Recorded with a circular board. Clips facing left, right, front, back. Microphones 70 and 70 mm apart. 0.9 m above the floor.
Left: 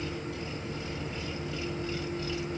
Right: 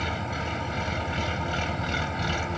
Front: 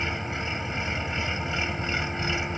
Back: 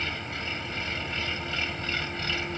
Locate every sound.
0.0 s an engine running: 70° right